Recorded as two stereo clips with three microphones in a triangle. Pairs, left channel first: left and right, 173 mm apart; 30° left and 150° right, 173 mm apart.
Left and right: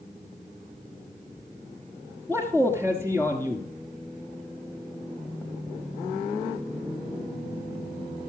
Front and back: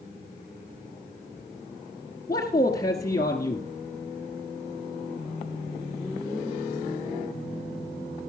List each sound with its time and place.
2.3 s a man speaking: 25° right, 1.4 m